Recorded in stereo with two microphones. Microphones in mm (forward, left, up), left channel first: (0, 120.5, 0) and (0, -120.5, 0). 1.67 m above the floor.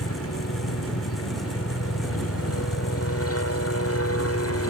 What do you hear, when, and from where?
0.0 s a helicopter: 70° left (ahead or behind); by 4.7 s 75° left (ahead or behind)